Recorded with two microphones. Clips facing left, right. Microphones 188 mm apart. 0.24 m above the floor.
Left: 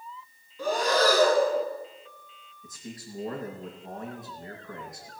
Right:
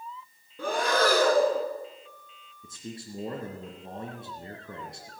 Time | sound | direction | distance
0.6 | breathing | 60° right (ahead or behind) | 2.5 m
2.6 | a man speaking | 30° right (ahead or behind) | 3 m